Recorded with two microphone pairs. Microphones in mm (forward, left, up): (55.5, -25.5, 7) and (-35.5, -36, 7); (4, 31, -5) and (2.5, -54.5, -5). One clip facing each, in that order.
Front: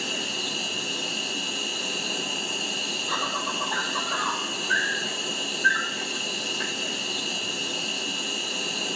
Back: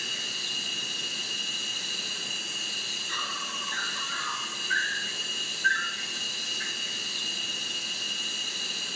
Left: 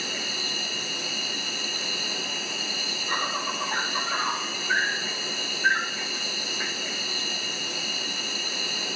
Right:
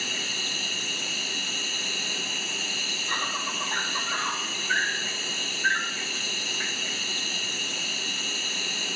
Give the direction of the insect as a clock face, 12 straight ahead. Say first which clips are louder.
Front 8 dB, left 1 dB; 12 o'clock.